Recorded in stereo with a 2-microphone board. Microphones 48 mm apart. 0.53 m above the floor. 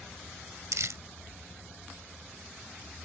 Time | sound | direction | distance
0.7 | crumpling | 80° right | ?